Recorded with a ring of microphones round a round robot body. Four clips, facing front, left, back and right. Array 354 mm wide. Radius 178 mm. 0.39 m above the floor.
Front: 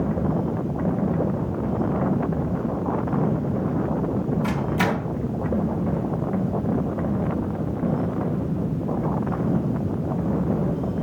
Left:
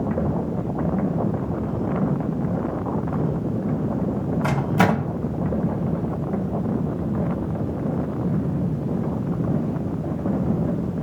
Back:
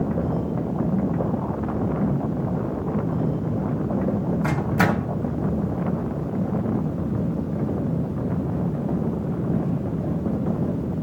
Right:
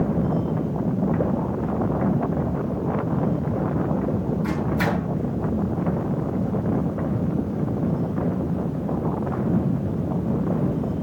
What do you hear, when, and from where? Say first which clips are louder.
4.4 s a microwave: left 7 dB, back 1 dB; 105° left, 2.5 m